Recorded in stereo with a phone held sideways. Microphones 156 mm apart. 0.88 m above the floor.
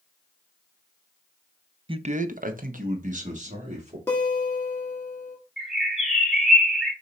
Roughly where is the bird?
Centre.